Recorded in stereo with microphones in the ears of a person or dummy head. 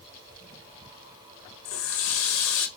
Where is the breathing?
I don't hear breathing.